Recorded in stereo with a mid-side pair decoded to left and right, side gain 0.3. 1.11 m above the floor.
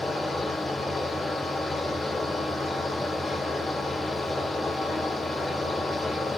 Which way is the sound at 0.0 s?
35° left.